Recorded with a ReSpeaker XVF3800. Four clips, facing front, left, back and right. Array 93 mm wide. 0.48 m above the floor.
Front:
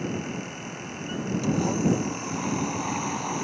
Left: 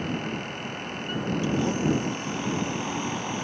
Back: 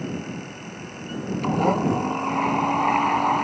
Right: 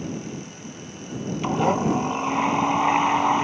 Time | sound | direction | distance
1.4 | a blender | 130° right | ?